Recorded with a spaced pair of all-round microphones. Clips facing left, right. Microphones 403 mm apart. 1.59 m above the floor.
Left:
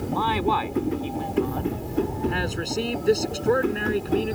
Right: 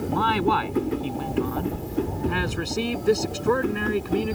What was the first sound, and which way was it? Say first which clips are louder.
A man speaking: right 1 dB; 25° right (ahead or behind).